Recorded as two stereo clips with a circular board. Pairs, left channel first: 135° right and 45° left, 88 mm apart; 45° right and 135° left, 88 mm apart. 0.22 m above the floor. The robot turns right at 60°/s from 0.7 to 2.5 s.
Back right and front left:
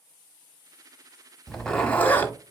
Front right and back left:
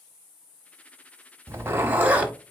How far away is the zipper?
About 0.8 m.